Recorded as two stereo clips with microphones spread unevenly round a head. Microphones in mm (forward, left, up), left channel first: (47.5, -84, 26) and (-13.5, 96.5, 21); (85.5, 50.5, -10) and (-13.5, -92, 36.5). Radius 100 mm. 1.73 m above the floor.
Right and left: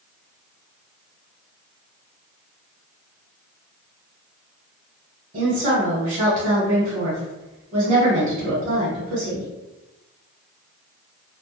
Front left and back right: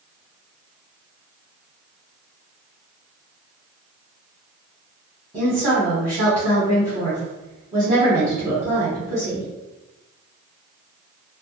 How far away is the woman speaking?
About 0.9 m.